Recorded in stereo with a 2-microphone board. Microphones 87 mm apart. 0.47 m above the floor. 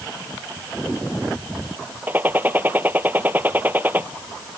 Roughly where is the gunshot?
Right.